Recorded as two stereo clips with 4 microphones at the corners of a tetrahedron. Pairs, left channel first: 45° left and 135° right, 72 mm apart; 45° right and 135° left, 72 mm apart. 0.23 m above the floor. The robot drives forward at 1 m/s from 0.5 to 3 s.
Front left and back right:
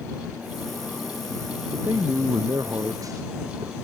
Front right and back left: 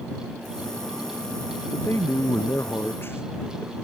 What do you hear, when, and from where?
1.7 s a man speaking: 95° right; by 3.7 s 100° right